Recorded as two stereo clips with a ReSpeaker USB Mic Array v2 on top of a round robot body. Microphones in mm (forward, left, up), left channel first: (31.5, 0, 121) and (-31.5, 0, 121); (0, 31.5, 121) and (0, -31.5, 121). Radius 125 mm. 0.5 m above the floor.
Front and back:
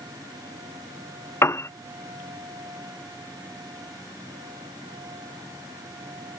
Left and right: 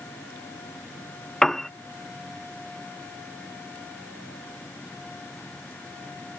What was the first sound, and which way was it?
A piano, 10° left.